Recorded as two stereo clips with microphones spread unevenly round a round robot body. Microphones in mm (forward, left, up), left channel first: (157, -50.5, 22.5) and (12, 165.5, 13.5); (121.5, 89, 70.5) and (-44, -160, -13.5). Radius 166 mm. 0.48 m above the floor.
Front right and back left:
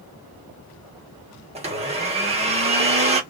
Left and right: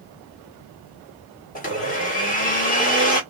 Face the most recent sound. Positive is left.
turn(degrees=120)